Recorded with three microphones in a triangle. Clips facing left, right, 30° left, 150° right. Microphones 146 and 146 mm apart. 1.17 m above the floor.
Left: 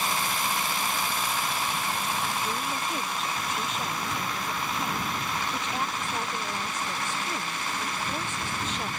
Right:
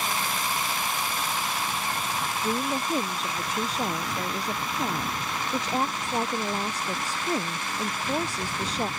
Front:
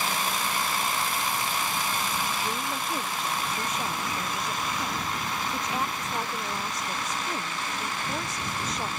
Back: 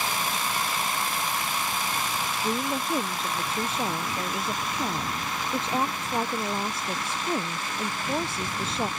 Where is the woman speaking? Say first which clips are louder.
Right 4 dB, back 3 dB; 110° right.